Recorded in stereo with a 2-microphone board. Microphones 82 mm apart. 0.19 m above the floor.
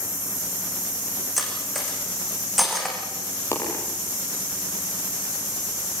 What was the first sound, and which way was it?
Cutlery clinking, centre (ahead or behind).